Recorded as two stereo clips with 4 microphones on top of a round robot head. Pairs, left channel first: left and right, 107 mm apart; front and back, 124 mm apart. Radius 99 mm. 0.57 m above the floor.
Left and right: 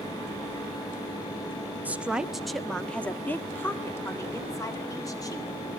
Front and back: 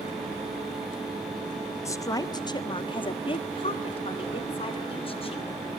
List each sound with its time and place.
1.9 s a woman speaking: 30° right, 1.3 m; by 5.5 s 40° left, 3 m